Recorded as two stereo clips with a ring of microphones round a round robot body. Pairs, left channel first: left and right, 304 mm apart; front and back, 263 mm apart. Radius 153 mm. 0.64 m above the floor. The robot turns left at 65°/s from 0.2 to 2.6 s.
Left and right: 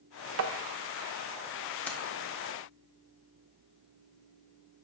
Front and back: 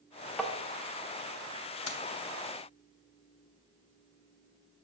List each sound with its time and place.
0.4 s tapping: 85° right, 0.6 m; by 0.5 s 95° right, 0.6 m
1.9 s keys jangling: 5° left, 0.9 m; by 2.0 s 5° right, 0.9 m